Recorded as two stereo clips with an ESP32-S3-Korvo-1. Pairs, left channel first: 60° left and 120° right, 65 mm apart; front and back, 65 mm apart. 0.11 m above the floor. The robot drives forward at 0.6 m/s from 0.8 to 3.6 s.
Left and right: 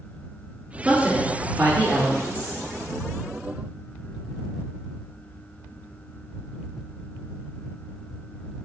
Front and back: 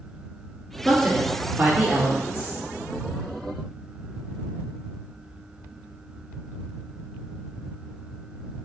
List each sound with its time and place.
0.8 s a woman speaking: 65° right, 1.3 m; by 2.6 s 145° right, 1.5 m